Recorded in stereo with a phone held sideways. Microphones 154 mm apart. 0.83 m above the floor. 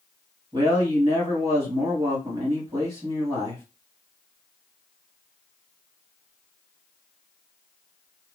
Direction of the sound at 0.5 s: 30° right (ahead or behind).